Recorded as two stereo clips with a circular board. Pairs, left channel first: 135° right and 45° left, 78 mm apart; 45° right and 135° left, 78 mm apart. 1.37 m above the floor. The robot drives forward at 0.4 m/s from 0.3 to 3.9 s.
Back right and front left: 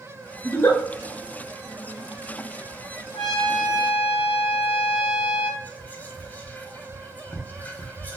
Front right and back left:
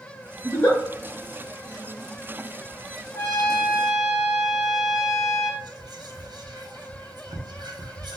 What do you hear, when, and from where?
0.4 s a giggle: 90° right, 1.2 m; by 0.8 s 100° right, 1.2 m
3.1 s a trumpet: 145° right, 1.7 m; by 5.5 s 150° right, 1.9 m
5.6 s whispering: 155° left, 0.7 m